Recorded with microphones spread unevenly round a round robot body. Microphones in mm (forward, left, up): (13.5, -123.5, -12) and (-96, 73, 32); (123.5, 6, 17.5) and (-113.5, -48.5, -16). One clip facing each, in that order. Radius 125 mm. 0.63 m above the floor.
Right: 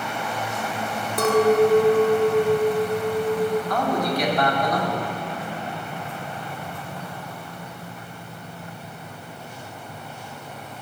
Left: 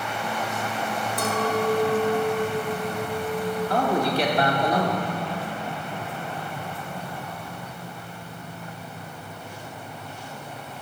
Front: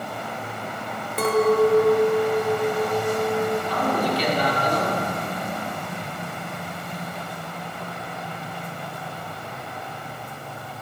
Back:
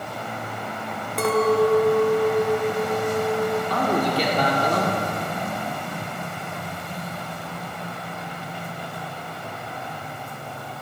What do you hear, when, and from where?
1.2 s a clink: 75° right, 1.0 m
3.7 s a man speaking: 175° right, 1.8 m